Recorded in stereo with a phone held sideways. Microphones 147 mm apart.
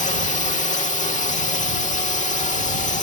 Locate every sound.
0.0 s a drone: 55° left (ahead or behind)